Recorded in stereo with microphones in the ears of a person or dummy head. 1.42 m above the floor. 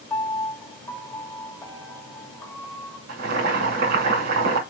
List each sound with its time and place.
0.1 s a piano: 15° left (ahead or behind), 1.3 m
3.1 s boiling: 55° right (ahead or behind), 2.5 m